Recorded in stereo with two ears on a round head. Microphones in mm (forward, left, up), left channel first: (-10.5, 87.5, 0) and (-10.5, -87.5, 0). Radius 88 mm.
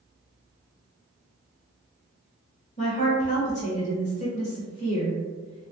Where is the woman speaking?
35° left (ahead or behind), 1.4 m.